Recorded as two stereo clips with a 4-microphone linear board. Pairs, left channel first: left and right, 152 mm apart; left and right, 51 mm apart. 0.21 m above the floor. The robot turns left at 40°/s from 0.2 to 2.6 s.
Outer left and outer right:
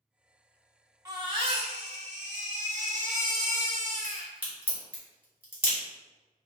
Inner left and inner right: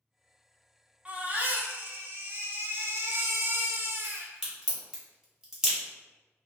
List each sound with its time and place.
1.1 s a baby crying: 30° right, 0.5 m; by 4.3 s 95° right, 0.5 m
4.0 s a crack: 10° right (ahead or behind), 1.4 m